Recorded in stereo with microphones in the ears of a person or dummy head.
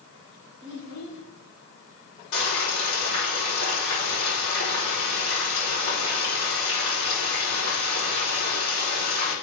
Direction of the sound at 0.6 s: 60° left (ahead or behind).